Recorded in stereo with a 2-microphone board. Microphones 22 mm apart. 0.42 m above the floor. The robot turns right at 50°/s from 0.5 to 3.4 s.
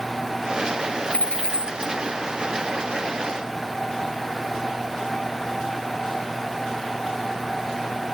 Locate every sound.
1.1 s a dropped coin: 115° left, 0.8 m; by 1.9 s 155° left, 0.8 m